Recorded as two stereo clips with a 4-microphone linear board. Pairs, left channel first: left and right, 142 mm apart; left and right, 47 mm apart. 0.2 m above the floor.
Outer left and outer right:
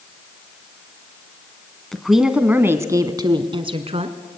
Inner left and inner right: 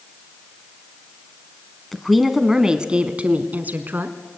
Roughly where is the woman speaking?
Centre.